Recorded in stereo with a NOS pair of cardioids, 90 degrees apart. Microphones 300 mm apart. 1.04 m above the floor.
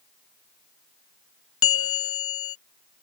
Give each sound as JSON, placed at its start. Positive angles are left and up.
{"t": 1.6, "sound": "a bell", "azimuth_deg": 50}